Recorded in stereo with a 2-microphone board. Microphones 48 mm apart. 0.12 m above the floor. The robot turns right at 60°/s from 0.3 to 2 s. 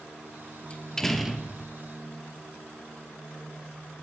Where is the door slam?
150° left, 1.6 m; by 1.8 s 145° right, 1.6 m.